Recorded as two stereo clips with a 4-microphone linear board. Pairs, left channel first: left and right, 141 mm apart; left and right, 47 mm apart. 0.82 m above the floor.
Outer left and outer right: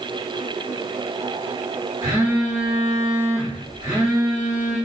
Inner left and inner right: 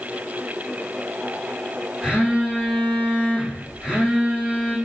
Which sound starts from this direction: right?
A phone buzzing, at 2.0 s.